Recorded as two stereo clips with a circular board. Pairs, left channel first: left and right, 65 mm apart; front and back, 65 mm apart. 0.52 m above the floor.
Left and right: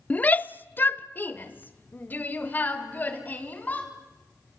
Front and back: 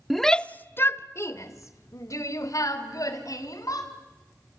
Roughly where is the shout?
Left.